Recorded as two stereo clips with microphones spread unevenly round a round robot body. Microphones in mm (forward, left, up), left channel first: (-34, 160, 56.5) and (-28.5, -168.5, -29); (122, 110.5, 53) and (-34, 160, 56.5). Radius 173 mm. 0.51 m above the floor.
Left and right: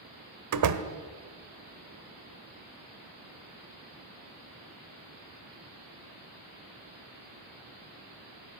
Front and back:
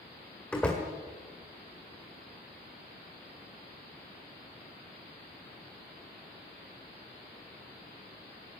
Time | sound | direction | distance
0.5 | a door slam | 100° right | 1.6 m